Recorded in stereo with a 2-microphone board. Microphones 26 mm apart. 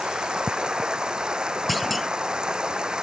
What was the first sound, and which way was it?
Running water, 35° right (ahead or behind).